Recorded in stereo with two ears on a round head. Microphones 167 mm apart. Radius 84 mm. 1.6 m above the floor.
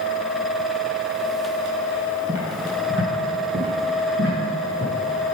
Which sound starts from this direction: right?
Footsteps, at 2.3 s.